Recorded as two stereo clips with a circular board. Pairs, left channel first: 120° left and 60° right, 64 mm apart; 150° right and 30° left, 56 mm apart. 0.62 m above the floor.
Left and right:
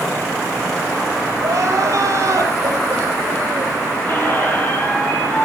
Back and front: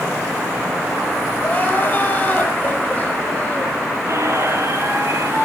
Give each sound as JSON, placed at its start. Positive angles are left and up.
{"t": 1.4, "sound": "crying", "azimuth_deg": -95, "distance_m": 5.0}
{"t": 4.1, "sound": "a squeak", "azimuth_deg": 65, "distance_m": 5.0}